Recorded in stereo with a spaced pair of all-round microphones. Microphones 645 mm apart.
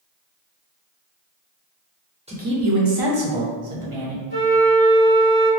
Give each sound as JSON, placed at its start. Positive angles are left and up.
{"t": 2.3, "sound": "a man speaking", "side_deg": -10, "distance_m": 0.7}
{"t": 4.3, "sound": "a flute", "side_deg": -70, "distance_m": 1.9}